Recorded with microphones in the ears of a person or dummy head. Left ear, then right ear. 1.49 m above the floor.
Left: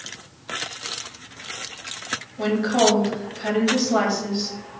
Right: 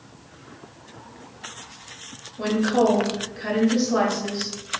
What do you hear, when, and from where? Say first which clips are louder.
2.4 s a woman speaking: left 1 dB; 10° left (ahead or behind), 0.7 m